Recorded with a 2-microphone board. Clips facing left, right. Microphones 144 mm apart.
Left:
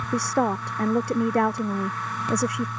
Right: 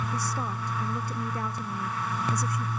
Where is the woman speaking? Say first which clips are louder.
Left 9 dB; 70° left (ahead or behind).